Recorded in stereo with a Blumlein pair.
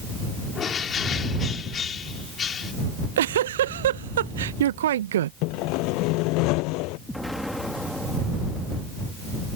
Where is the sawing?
40° left.